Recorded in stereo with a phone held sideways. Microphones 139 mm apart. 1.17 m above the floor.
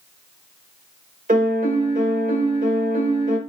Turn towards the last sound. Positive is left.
turn(degrees=-70)  # may be behind; listen again after turning